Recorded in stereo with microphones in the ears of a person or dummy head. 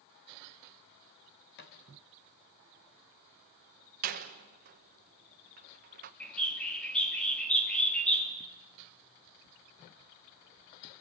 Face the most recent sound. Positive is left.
turn(degrees=5)  # may be behind; listen again after turning